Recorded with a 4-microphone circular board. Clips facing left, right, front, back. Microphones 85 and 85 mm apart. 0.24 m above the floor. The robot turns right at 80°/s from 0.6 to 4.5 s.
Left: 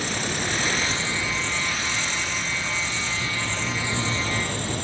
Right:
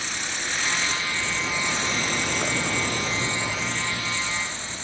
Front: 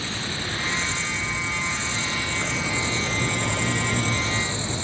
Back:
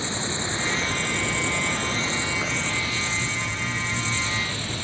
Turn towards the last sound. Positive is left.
turn(degrees=70)